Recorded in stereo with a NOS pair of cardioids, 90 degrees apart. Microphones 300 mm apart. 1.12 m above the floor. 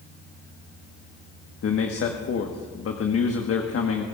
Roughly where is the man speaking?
Ahead left.